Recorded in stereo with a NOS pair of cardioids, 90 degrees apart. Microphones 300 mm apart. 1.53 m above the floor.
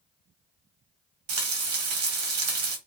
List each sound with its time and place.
1.3 s frying: 65° right, 1.5 m